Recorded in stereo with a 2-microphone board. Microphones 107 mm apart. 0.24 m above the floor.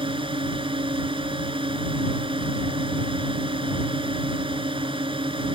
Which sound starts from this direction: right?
A drone, at 0.0 s.